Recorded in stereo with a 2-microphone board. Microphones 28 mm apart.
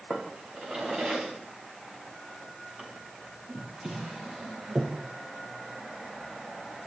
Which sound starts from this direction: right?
A drawer, at 0.1 s.